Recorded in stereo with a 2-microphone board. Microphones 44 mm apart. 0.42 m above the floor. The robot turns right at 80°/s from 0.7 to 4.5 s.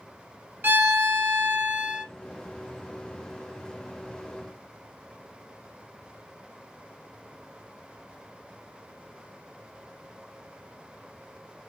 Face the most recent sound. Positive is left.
turn(degrees=175)